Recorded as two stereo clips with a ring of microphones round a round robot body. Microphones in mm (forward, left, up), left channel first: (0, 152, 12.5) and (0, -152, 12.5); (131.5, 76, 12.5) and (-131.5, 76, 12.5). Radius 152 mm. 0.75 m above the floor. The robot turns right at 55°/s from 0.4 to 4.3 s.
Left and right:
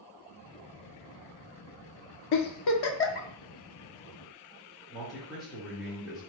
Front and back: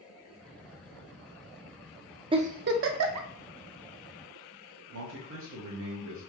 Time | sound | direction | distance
2.3 | a giggle | 105° left | 0.5 m
4.9 | a man speaking | straight behind | 0.8 m